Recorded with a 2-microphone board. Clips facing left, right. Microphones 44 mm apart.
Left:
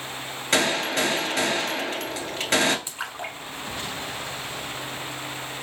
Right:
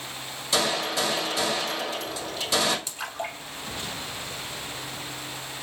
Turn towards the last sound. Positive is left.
turn(degrees=25)  # may be behind; listen again after turning